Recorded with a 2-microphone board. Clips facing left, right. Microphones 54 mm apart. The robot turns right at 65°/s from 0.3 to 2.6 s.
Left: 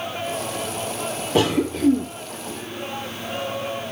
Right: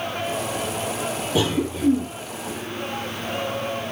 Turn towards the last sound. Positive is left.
turn(degrees=140)